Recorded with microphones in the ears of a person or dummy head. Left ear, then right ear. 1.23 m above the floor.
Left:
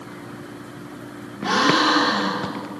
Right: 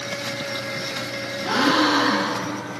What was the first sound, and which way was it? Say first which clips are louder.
A gasp: left 2 dB; 30° left (ahead or behind).